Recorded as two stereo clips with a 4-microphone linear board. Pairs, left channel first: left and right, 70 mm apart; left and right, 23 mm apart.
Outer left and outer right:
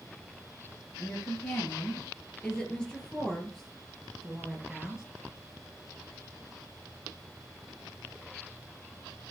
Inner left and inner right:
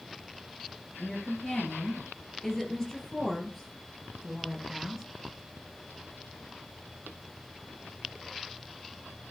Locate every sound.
1.0 s a woman speaking: 25° left (ahead or behind), 5.5 m; by 5.0 s 10° right (ahead or behind), 5 m